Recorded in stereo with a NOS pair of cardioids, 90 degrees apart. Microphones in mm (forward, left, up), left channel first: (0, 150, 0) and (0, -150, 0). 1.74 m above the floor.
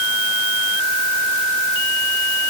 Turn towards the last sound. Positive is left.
No sound to turn to.